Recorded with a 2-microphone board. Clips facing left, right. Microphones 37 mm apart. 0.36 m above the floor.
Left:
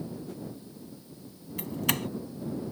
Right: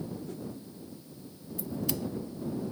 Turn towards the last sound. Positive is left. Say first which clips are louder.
# left 3 dB
turn(degrees=65)  # may be behind; listen again after turning